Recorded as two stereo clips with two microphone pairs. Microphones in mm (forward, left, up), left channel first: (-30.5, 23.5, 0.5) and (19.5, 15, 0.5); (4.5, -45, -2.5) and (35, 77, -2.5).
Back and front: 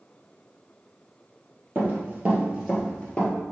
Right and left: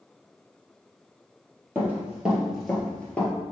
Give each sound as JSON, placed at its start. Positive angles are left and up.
{"t": 1.8, "sound": "running footsteps", "azimuth_deg": 10, "distance_m": 1.8}